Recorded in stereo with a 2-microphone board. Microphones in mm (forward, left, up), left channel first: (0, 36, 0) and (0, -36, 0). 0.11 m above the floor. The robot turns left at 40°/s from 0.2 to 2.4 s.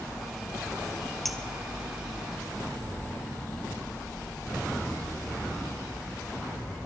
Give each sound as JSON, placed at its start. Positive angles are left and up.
{"t": 1.2, "sound": "a clink", "side_deg": 0, "distance_m": 1.5}